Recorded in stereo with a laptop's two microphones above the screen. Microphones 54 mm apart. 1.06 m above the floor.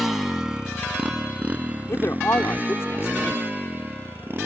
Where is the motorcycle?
5° right (ahead or behind); by 4.5 s 40° right (ahead or behind).